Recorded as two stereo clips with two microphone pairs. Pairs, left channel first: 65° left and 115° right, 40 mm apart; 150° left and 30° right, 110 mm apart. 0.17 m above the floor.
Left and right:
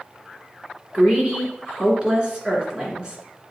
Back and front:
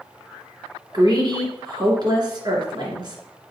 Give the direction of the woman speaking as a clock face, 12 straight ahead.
2 o'clock.